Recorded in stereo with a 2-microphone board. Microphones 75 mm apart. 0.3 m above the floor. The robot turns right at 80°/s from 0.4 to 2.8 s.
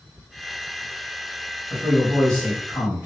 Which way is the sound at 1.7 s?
115° left.